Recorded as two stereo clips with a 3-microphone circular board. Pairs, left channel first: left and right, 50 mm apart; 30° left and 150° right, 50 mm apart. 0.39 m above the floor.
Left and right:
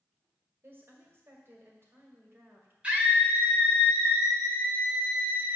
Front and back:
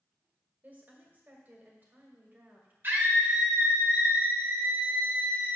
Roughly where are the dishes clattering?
I don't hear dishes clattering.